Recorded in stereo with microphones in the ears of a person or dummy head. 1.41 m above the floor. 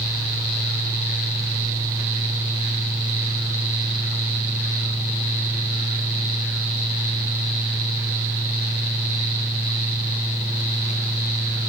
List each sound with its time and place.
Only background noise.